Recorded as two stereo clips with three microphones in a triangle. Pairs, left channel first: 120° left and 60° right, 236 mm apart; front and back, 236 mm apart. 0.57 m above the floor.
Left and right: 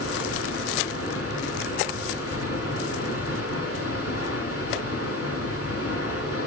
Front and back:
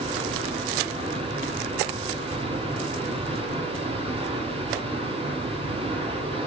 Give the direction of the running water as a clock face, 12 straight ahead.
8 o'clock.